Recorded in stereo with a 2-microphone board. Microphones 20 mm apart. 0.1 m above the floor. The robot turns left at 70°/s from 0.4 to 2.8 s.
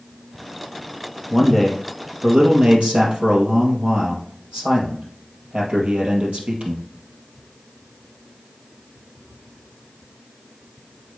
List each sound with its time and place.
1.3 s a man speaking: 25° left, 2.5 m; by 6.8 s 80° right, 2.5 m